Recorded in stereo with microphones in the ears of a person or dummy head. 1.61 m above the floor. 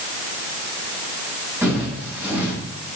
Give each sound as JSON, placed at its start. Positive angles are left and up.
{"t": 1.6, "sound": "footsteps", "side_deg": -15, "distance_m": 7.0}